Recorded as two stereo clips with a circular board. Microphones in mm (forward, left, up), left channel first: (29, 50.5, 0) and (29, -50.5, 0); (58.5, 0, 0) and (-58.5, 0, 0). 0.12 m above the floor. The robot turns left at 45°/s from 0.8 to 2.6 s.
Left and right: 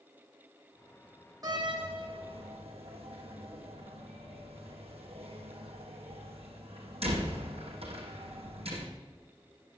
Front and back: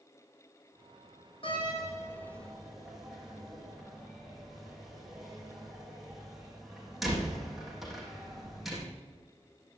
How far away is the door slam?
About 4 m.